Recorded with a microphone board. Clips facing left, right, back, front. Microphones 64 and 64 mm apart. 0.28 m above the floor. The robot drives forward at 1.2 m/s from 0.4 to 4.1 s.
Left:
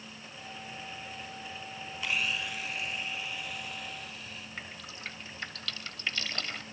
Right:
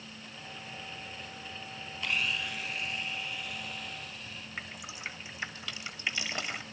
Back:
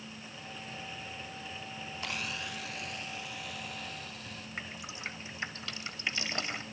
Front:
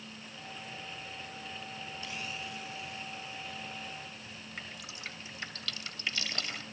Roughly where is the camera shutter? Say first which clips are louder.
Even, back 4 dB; behind.